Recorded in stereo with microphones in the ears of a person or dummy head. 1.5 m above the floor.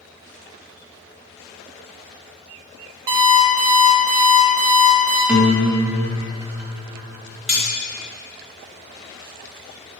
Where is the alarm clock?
20° right (ahead or behind), 0.5 m.